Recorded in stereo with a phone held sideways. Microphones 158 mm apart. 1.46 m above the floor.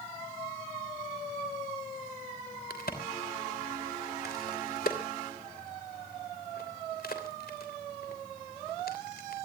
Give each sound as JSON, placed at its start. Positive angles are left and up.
{"t": 2.7, "sound": "a crack", "side_deg": 75, "distance_m": 3.0}